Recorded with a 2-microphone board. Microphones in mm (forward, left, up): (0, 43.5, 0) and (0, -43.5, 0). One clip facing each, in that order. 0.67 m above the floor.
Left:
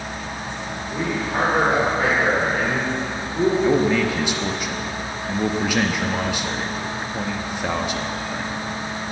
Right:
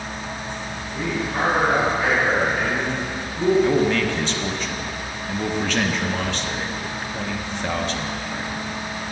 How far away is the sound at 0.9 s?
About 2.5 m.